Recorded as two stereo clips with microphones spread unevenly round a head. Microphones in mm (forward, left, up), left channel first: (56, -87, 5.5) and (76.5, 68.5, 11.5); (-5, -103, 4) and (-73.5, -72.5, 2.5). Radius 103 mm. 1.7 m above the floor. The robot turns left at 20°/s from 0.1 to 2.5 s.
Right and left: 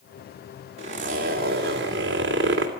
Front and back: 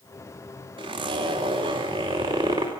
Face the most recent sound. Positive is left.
turn(degrees=110)